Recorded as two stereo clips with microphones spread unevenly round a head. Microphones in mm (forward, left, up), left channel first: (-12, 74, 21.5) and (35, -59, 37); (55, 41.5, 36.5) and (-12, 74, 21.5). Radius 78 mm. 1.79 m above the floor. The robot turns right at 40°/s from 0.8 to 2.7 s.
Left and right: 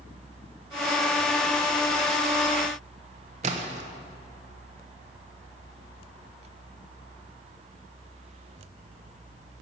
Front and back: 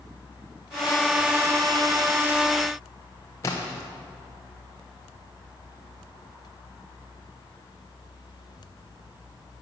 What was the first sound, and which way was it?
A splash, 65° right.